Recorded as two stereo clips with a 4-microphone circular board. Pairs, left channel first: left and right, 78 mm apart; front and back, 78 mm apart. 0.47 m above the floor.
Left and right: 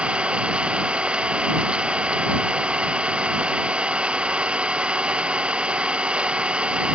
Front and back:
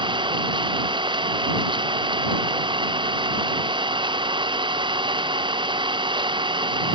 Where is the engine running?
165° right.